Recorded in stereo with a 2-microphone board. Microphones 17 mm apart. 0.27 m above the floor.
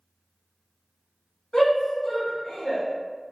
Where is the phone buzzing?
No phone buzzing in this recording.